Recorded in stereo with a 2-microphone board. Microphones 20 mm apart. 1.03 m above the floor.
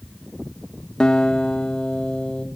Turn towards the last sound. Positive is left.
turn(degrees=50)  # may be behind; listen again after turning